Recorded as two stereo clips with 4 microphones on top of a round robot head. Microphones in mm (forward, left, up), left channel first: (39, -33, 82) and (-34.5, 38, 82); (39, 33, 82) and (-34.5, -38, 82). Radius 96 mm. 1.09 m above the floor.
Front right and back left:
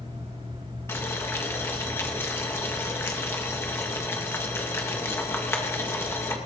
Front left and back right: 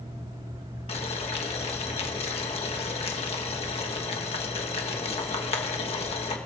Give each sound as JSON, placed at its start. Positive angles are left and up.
{"t": 0.9, "sound": "boiling", "azimuth_deg": 20, "distance_m": 1.4}